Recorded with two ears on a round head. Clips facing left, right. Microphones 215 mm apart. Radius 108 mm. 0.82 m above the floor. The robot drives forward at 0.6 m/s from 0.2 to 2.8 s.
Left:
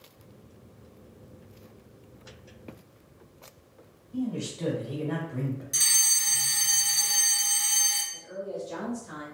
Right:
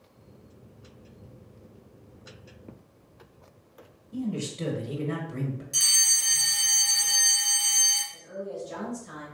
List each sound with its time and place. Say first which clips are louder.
4.1 s a man speaking: even; 40° right (ahead or behind), 0.8 m
5.7 s a fire alarm: left 1 dB; 20° left (ahead or behind), 1.7 m
8.1 s a woman speaking: even; 35° right (ahead or behind), 1.4 m